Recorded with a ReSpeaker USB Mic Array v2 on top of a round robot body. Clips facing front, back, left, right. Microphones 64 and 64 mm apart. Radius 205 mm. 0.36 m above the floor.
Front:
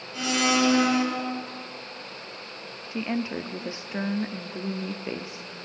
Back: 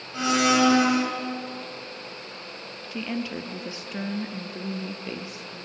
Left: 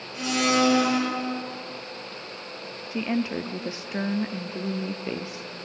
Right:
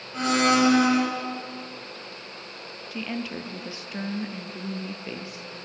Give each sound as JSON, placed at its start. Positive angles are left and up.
{"t": 0.1, "sound": "a blender", "azimuth_deg": -125, "distance_m": 7.0}
{"t": 2.9, "sound": "a woman speaking", "azimuth_deg": 40, "distance_m": 1.2}